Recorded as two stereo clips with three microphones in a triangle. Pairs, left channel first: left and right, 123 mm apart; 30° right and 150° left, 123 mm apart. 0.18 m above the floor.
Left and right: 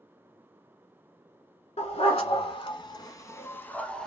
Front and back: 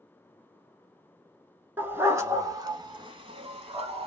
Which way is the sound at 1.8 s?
80° left.